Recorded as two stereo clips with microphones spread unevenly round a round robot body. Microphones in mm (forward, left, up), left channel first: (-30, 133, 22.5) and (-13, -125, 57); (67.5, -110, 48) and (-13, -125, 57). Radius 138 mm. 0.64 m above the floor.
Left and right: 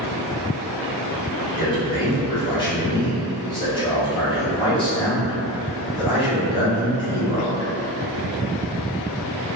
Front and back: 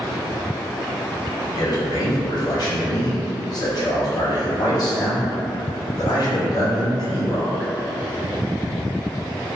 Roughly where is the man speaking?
Ahead left.